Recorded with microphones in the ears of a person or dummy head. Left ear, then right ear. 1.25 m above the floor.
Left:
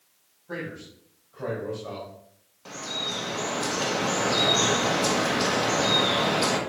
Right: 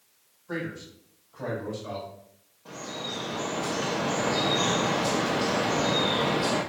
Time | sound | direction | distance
0.5 | a man speaking | 5° right (ahead or behind) | 4 m
2.6 | dripping | 65° left (ahead or behind) | 1.4 m